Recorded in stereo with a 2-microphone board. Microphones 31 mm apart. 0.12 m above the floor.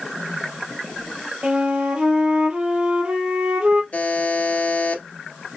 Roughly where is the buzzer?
Left.